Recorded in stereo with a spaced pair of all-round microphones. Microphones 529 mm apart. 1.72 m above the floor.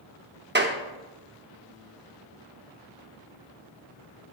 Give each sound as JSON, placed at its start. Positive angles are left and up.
{"t": 0.6, "sound": "a clap", "side_deg": -20, "distance_m": 0.7}